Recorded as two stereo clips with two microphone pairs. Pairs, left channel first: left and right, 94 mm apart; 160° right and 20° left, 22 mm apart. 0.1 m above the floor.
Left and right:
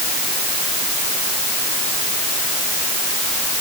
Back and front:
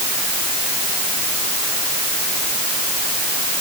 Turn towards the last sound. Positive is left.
No sound to turn to.